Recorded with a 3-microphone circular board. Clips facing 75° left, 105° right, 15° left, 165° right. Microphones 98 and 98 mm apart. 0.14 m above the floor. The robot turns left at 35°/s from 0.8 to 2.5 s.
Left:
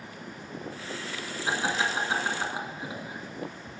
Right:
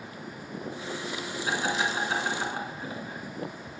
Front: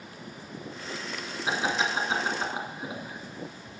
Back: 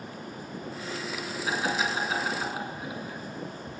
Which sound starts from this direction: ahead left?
Laughter, at 1.5 s.